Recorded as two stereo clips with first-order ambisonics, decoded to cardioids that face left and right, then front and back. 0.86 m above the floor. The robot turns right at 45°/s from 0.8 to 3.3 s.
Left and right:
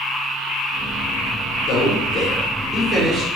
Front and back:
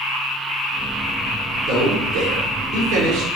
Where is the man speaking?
140° left, 2 m; by 3.3 s 150° right, 2 m.